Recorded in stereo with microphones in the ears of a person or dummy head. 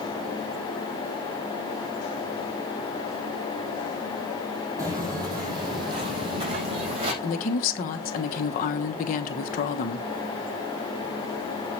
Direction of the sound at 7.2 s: 50° left (ahead or behind).